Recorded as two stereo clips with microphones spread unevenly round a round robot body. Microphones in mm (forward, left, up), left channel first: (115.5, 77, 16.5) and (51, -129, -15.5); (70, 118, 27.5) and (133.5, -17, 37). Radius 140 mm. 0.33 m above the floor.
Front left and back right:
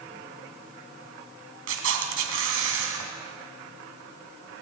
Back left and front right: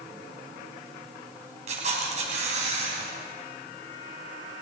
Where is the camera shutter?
120° right, 3 m.